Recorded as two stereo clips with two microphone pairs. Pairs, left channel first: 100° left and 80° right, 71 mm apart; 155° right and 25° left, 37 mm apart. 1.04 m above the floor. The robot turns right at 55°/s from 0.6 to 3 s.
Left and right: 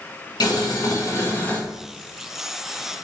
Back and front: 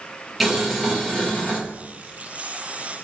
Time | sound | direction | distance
0.4 | boiling | 115° left | 1.0 m